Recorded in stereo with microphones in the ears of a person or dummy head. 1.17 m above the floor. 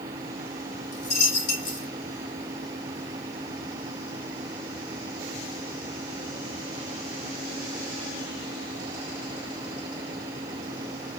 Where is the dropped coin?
60° left (ahead or behind), 1.6 m.